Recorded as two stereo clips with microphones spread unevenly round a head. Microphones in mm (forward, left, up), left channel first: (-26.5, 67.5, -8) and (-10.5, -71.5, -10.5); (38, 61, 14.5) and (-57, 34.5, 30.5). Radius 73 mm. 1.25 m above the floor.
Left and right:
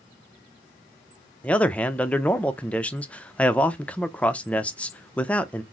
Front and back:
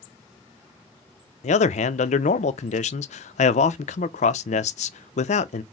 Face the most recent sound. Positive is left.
turn(degrees=15)